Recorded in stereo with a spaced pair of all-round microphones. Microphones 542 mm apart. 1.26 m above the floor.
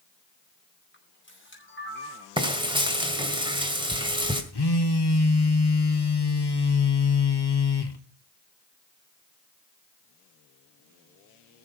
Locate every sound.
0.9 s a camera shutter: 20° left (ahead or behind), 4.5 m
2.4 s frying: 10° right (ahead or behind), 1.9 m
4.5 s a phone buzzing: 45° left (ahead or behind), 1.2 m